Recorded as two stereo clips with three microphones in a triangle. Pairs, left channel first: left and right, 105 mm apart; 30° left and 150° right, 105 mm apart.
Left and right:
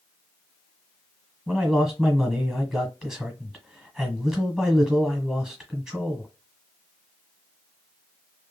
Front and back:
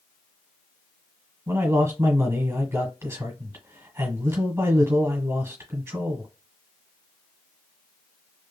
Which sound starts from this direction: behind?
A man speaking, at 1.5 s.